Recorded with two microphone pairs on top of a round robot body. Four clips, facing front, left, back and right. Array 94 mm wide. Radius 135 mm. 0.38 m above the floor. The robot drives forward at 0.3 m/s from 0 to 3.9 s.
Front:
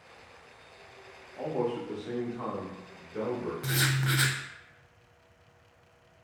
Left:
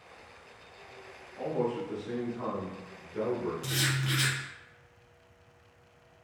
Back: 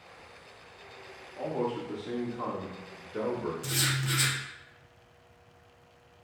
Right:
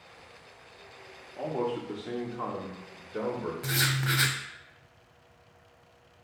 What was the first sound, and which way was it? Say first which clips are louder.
A man speaking: even, front 1 dB; 75° right.